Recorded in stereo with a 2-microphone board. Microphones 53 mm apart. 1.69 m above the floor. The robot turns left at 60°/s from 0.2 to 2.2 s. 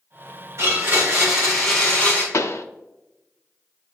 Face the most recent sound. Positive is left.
turn(degrees=60)  # may be behind; listen again after turning